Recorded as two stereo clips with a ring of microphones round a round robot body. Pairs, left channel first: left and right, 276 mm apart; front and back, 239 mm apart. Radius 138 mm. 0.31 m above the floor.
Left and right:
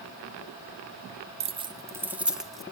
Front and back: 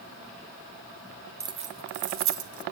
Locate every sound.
1.4 s keys jangling: 115° right, 0.7 m; by 2.6 s straight behind, 1.5 m